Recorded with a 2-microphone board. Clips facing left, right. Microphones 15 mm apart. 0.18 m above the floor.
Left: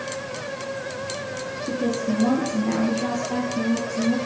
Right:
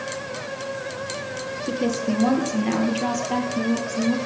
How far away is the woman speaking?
About 3 m.